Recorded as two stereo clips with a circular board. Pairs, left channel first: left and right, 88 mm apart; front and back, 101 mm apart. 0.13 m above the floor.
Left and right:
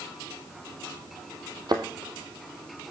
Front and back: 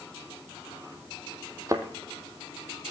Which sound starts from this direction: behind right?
A thud, at 1.7 s.